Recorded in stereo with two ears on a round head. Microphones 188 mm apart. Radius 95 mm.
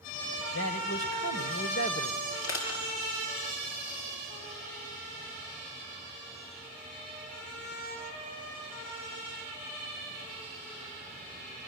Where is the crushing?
75° left (ahead or behind), 6.5 m.